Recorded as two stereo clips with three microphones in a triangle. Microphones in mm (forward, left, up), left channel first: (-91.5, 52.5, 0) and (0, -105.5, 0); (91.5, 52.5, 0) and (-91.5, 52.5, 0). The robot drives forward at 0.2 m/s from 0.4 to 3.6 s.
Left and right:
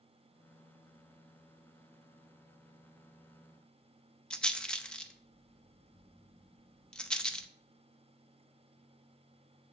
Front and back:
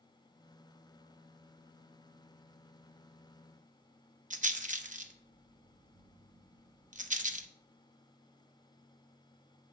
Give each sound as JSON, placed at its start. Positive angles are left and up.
{"t": 4.3, "sound": "a rattle", "azimuth_deg": -155, "distance_m": 0.6}